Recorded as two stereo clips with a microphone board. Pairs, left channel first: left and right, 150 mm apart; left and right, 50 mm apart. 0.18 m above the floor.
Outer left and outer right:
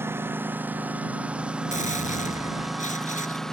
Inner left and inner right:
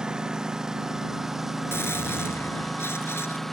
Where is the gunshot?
60° left (ahead or behind).